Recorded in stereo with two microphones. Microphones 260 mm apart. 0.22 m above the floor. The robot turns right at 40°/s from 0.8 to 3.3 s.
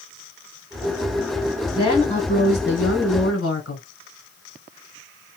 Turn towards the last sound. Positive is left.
turn(degrees=80)